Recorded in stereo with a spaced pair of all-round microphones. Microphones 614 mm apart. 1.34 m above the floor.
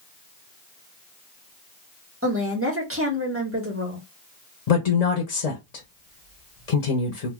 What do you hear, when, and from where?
2.2 s a woman speaking: 20° right (ahead or behind), 1.4 m
4.7 s a woman speaking: 75° left (ahead or behind), 0.9 m